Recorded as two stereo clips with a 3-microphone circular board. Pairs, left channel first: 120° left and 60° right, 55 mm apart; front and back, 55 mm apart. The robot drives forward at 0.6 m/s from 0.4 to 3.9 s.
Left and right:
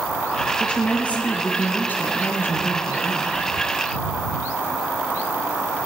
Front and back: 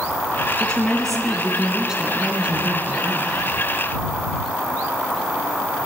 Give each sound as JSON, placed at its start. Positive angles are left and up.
{"t": 0.6, "sound": "a woman speaking", "azimuth_deg": 60, "distance_m": 1.5}